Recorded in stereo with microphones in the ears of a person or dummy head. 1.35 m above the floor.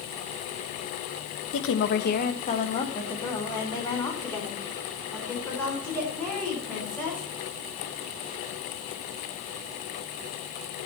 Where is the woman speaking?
65° left (ahead or behind), 1.2 m; by 7.2 s 5° left (ahead or behind), 6 m.